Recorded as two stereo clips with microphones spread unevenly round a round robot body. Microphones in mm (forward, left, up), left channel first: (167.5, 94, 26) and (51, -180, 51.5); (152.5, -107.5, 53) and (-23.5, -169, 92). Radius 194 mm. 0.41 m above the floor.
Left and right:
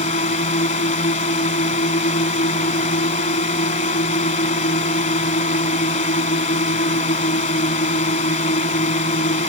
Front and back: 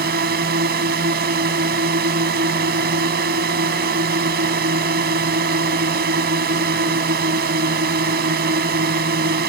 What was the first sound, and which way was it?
A drone, 140° left.